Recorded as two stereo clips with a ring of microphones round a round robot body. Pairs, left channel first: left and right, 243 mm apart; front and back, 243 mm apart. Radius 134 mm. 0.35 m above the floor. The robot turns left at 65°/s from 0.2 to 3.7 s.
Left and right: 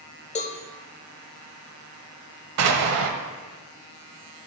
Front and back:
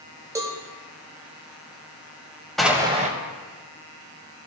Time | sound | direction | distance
0.3 | a cowbell | 115° left | 0.8 m
2.6 | an explosion | 90° right | 1.1 m